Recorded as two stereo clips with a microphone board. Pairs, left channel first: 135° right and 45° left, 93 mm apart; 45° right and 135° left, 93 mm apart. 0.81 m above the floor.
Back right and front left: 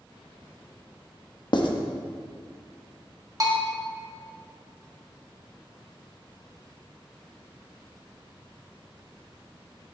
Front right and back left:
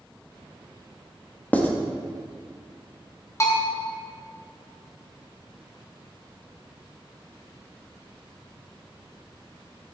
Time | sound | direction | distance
1.5 | writing | 115° right | 0.9 m
3.4 | a bell | 5° left | 1.5 m